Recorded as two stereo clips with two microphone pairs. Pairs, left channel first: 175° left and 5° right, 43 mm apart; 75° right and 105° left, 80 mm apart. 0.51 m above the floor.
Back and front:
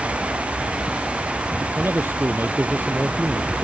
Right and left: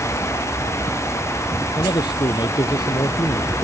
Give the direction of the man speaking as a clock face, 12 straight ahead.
2 o'clock.